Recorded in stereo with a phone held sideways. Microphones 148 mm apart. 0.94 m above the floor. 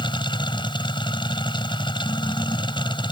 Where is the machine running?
35° left (ahead or behind).